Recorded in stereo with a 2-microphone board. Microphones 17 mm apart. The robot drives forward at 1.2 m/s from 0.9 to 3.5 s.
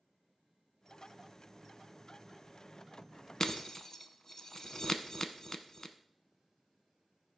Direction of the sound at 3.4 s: 35° left (ahead or behind).